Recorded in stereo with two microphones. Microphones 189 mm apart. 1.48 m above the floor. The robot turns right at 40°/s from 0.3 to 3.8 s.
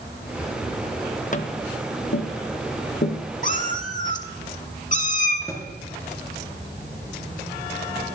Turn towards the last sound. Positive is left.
turn(degrees=15)  # may be behind; listen again after turning